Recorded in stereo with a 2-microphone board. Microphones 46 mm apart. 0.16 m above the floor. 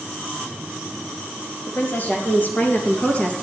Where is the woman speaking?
45° left (ahead or behind), 4 m; by 3.4 s 25° left (ahead or behind), 3 m.